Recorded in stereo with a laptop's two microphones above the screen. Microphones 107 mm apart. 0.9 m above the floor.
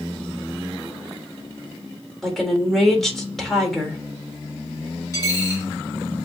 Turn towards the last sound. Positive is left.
turn(degrees=30)  # may be behind; listen again after turning